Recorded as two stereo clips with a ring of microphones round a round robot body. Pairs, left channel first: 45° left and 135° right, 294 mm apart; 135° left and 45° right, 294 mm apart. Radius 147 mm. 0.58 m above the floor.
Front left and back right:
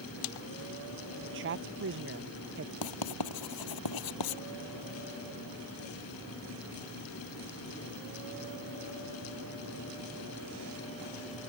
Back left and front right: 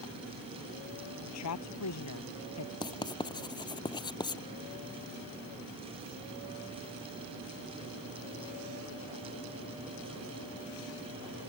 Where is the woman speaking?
175° left.